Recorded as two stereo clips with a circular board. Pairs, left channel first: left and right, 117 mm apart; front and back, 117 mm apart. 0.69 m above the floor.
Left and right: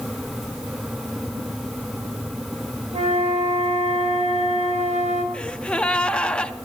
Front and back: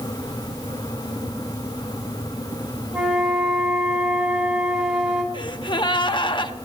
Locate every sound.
2.9 s a flute: 100° right, 3 m
5.3 s a gasp: 15° left, 0.8 m